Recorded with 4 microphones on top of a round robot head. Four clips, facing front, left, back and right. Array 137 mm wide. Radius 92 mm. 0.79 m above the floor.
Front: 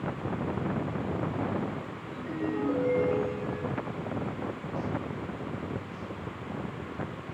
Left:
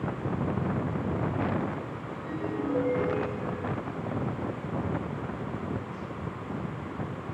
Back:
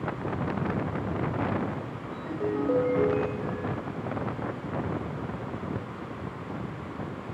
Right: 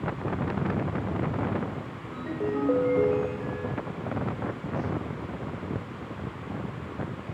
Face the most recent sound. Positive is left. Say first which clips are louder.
# right 5 dB, back 2 dB
turn(degrees=-115)